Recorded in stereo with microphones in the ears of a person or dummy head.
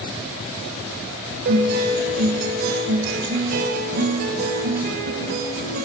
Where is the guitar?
55° right (ahead or behind), 3.5 m.